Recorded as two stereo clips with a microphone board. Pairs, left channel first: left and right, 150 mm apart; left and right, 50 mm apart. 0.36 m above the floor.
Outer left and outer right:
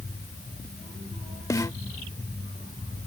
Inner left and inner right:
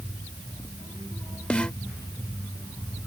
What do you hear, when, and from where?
1.5 s a snare drum: 20° left (ahead or behind)